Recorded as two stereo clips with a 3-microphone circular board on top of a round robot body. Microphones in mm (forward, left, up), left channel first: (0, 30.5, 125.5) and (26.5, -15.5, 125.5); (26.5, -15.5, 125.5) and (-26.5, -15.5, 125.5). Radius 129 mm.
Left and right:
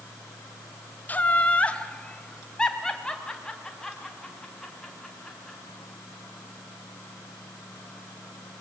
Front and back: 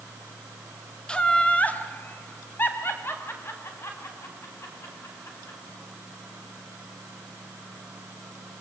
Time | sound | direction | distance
1.1 | laughter | 70° left | 1.8 m